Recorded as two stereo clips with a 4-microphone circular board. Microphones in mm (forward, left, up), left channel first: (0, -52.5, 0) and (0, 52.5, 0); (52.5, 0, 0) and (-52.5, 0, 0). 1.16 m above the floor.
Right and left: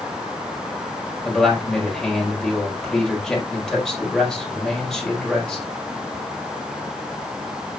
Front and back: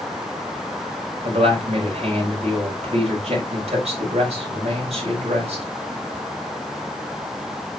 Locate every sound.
1.2 s a man speaking: 175° right, 4 m